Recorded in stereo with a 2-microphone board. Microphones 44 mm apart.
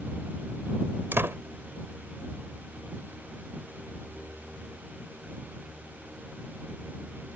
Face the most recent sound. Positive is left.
turn(degrees=-55)  # may be behind; listen again after turning